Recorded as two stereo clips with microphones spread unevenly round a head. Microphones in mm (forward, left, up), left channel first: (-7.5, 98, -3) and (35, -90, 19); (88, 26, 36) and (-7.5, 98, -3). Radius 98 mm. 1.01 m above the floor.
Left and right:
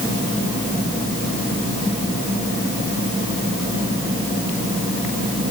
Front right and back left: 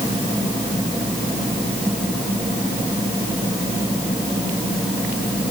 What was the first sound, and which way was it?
Only background noise.